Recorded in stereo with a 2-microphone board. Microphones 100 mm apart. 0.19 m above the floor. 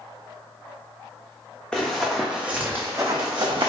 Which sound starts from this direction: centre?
Running footsteps, at 1.7 s.